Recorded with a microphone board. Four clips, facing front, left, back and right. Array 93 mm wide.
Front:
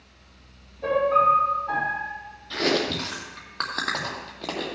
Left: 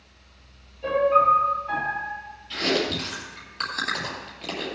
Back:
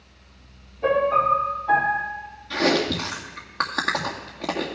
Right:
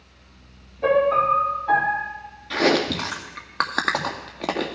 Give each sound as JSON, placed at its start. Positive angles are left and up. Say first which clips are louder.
{"t": 0.8, "sound": "a piano", "louder": "right 1 dB, even", "azimuth_deg": -100, "distance_m": 4.5}
{"t": 2.5, "sound": "chewing", "louder": "right 5 dB, back 3 dB", "azimuth_deg": -100, "distance_m": 2.0}